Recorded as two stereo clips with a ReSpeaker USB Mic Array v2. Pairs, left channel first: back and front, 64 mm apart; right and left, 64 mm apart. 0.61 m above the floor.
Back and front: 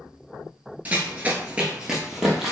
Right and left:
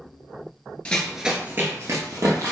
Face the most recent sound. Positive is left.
turn(degrees=85)